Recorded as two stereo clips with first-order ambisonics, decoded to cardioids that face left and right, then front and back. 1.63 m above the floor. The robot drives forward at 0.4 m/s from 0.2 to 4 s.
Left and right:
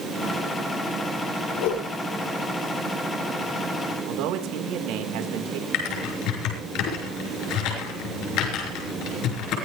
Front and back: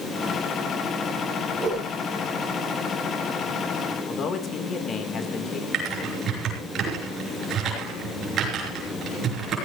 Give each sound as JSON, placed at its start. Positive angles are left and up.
{"t": 1.6, "sound": "a whoosh", "azimuth_deg": 95, "distance_m": 6.0}
{"t": 4.1, "sound": "a man speaking", "azimuth_deg": -60, "distance_m": 2.5}
{"t": 5.7, "sound": "typing on a keyboard", "azimuth_deg": 125, "distance_m": 5.5}